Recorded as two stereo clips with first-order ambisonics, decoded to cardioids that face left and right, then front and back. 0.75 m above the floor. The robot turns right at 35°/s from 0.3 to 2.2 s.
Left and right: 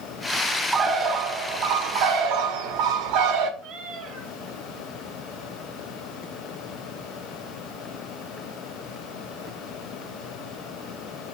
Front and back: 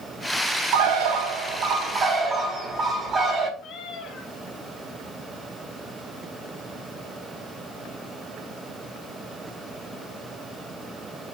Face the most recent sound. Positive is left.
turn(degrees=-50)